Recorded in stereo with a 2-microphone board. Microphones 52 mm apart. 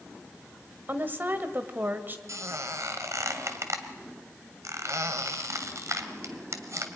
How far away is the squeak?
About 2 m.